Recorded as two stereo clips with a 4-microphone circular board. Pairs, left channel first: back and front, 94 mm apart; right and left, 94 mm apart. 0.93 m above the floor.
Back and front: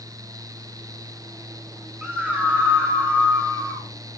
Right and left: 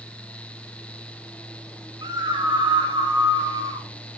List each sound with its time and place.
2.0 s a scream: 80° left, 1.2 m; by 3.9 s 55° left, 2.5 m